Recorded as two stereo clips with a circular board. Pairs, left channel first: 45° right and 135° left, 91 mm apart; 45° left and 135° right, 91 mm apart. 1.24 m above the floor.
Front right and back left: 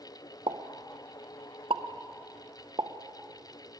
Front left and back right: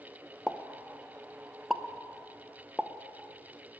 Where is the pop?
135° left, 0.7 m.